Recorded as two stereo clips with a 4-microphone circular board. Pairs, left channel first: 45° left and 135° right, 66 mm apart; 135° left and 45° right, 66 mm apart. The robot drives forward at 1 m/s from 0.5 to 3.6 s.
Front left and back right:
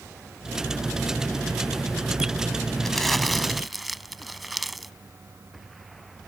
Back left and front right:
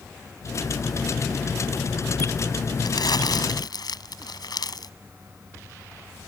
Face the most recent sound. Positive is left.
turn(degrees=135)